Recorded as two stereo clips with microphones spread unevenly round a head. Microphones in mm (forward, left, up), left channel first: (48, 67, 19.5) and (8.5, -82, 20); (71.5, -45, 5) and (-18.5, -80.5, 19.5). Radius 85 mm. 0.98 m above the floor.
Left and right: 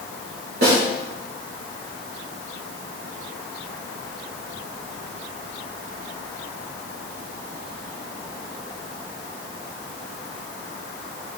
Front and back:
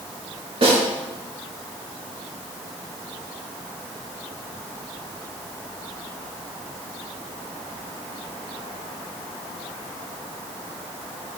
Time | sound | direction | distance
0.6 | a snare drum | 135° right | 3 m